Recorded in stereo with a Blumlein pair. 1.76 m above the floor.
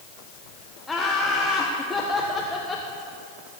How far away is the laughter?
About 1.4 m.